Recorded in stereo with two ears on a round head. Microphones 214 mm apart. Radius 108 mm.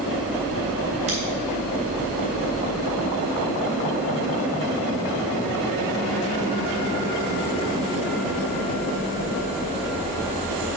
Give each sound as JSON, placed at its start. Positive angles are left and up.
{"t": 1.1, "sound": "scissors", "side_deg": -30, "distance_m": 4.5}